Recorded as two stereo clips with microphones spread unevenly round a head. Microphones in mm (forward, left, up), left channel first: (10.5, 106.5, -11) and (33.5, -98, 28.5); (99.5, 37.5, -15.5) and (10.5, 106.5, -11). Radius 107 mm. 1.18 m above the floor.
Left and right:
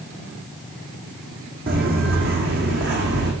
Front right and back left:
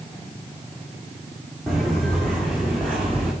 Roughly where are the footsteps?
Behind right.